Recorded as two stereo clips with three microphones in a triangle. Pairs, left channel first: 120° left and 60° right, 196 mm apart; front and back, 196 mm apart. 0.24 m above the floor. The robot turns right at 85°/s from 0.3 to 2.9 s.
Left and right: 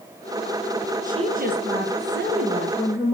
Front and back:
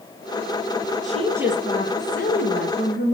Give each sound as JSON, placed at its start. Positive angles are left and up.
{"t": 1.0, "sound": "a woman speaking", "azimuth_deg": -135, "distance_m": 4.0}